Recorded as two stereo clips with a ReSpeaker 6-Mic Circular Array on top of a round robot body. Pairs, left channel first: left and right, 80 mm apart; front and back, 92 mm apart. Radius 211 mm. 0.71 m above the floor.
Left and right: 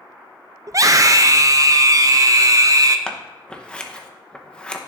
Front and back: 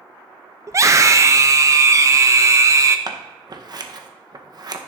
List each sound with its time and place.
0.7 s a scream: 130° right, 0.7 m
3.1 s scissors: 165° left, 1.1 m